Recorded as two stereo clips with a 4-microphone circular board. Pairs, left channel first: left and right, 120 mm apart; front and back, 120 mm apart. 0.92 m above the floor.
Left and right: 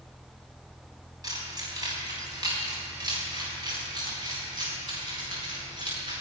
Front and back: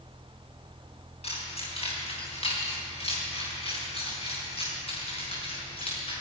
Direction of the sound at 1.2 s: 30° right.